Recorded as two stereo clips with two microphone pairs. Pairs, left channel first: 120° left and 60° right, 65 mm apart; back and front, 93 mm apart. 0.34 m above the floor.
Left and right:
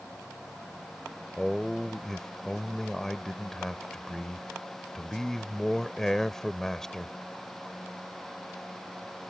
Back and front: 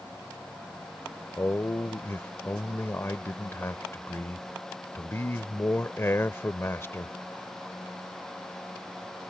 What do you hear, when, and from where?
1.4 s a man speaking: 160° right